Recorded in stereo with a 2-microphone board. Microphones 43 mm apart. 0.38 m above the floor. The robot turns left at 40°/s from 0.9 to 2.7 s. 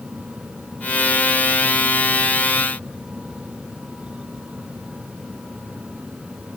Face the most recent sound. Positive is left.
No sound to turn to.